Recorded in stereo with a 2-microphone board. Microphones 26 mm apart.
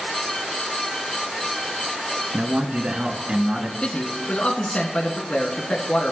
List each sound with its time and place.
2.3 s a man speaking: 65° right (ahead or behind), 2.5 m; by 3.7 s 50° right (ahead or behind), 3.5 m
3.8 s a man speaking: 45° left (ahead or behind), 3 m